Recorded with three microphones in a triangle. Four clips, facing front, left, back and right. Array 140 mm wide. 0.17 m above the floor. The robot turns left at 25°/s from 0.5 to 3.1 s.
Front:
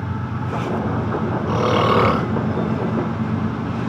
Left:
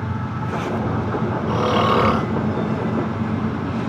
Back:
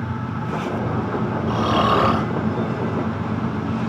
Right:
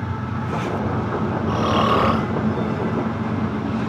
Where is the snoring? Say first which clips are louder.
Left 1 dB, front 1 dB; 25° left, 3 m; by 2.3 s 5° left, 3 m.